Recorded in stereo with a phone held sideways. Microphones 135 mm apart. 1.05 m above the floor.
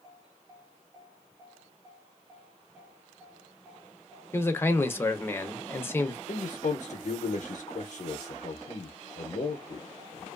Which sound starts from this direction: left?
A man speaking, at 6.3 s.